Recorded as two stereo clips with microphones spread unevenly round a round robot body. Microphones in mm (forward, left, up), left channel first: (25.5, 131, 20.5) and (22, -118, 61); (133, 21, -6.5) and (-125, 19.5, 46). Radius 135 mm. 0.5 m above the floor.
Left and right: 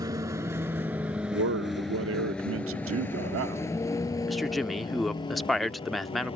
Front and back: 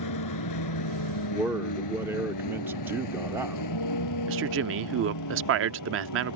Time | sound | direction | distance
0.0 | a vehicle | 15° right | ?
1.3 | a man speaking | 85° right | ?
4.3 | a man speaking | 165° left | ?